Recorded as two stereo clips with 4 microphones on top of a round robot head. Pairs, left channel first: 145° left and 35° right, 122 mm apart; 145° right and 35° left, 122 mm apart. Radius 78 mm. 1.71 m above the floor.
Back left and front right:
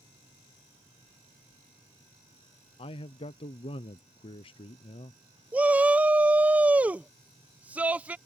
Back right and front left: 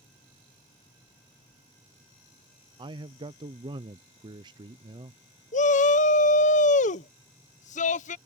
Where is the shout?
115° right.